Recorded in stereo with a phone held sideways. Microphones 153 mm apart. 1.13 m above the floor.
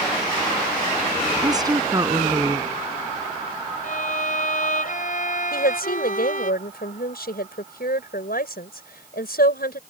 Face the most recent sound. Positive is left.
turn(degrees=85)